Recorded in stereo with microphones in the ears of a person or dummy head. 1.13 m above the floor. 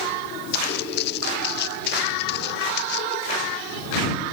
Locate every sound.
0.5 s footsteps: 65° left (ahead or behind); by 3.2 s 70° left (ahead or behind)